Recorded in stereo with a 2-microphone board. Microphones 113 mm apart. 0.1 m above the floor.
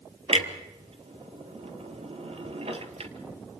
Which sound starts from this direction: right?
A clunk, at 0.3 s.